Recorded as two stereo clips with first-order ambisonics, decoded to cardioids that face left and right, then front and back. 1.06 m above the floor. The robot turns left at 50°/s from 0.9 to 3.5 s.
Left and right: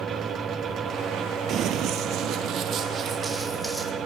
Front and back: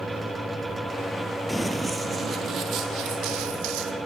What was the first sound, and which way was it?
Running footsteps, 85° right.